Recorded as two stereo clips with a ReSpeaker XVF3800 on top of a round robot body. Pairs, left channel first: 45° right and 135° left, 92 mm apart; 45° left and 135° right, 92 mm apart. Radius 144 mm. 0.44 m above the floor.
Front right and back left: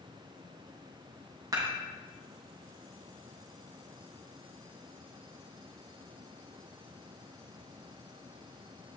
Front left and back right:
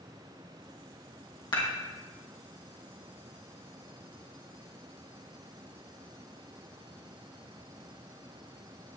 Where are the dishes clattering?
85° left, 3 m.